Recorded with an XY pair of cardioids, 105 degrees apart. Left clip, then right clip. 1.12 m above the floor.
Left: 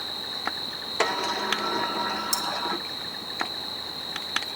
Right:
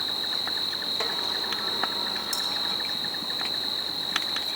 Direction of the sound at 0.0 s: 35° right.